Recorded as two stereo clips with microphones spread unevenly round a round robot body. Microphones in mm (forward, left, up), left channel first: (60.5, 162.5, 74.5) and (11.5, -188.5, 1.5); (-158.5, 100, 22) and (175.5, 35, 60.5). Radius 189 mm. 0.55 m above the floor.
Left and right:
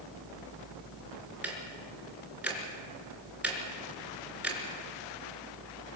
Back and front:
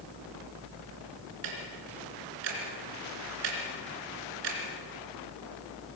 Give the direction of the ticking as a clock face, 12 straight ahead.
12 o'clock.